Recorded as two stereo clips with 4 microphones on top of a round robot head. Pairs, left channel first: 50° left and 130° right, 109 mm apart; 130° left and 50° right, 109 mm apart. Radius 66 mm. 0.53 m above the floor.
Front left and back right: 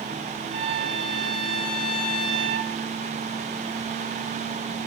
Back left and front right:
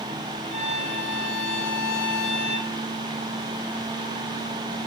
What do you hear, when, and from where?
0.5 s a violin: 80° right, 4.5 m